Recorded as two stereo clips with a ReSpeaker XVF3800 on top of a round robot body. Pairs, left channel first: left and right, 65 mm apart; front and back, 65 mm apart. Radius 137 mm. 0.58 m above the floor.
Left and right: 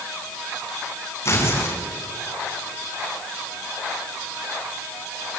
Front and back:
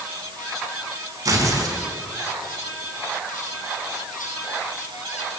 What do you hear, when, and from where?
1.2 s tearing paper: 145° left, 3 m